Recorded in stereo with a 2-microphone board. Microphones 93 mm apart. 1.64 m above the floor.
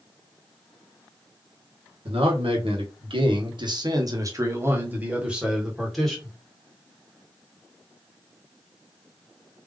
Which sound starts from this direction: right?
A man speaking, at 2.0 s.